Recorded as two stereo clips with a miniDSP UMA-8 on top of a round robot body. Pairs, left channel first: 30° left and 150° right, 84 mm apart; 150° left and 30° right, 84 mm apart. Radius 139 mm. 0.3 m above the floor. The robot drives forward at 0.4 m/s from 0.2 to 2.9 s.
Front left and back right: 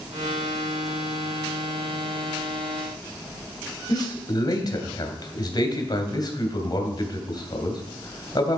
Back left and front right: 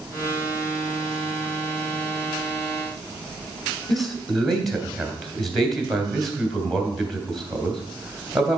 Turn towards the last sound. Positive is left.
turn(degrees=60)